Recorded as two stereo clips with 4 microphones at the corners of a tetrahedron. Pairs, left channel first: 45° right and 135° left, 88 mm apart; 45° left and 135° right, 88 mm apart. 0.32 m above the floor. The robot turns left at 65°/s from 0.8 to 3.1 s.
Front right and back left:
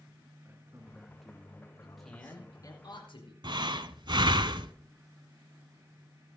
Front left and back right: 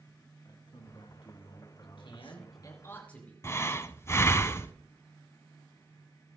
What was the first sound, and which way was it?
A man speaking, 70° left.